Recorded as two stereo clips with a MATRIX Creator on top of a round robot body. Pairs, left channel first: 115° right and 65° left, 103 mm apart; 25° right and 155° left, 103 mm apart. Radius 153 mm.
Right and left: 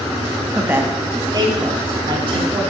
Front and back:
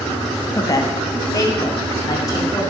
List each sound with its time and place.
0.5 s a woman speaking: 5° right, 1.3 m; by 2.6 s 35° left, 3.5 m